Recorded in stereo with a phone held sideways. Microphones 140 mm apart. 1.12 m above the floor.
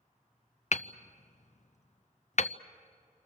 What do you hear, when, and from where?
0.7 s hammering: 55° left (ahead or behind), 0.5 m